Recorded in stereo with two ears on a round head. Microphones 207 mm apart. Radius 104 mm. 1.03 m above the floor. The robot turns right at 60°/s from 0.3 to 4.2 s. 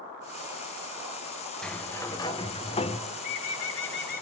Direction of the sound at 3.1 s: 75° left.